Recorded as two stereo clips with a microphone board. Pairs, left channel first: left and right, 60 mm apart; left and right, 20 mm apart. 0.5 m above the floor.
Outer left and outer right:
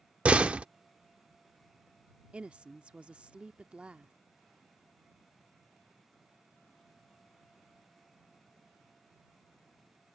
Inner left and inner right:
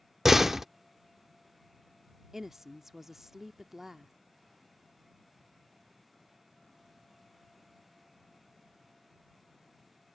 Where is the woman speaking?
20° right (ahead or behind).